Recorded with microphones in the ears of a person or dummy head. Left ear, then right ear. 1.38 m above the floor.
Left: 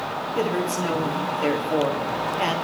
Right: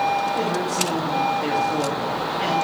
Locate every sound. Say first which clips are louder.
0.3 s a woman speaking: right 1 dB; 25° left (ahead or behind), 2.5 m